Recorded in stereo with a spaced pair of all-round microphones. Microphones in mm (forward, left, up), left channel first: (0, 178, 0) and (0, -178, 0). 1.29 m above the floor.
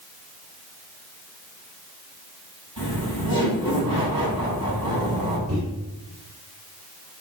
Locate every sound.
2.8 s laughter: 80° left, 4.5 m
5.5 s a microwave: 45° right (ahead or behind), 4 m